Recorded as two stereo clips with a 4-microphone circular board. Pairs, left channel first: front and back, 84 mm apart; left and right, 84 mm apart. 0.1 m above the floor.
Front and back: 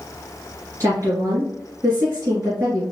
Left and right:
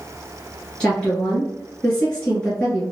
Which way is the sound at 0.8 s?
160° left.